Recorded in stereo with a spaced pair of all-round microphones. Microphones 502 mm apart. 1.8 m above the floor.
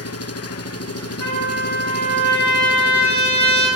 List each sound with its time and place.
0.0 s an engine running: 30° left (ahead or behind), 1.2 m
1.2 s a trumpet: 35° left (ahead or behind), 8 m